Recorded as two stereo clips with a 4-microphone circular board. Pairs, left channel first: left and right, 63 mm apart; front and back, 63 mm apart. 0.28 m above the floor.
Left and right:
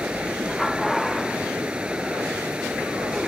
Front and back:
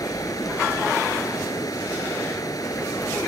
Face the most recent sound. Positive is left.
turn(degrees=-15)